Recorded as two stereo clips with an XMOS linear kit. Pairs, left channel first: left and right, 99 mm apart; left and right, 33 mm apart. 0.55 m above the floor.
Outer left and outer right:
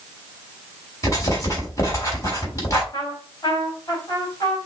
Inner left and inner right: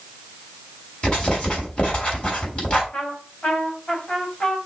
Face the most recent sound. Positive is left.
turn(degrees=40)  # may be behind; listen again after turning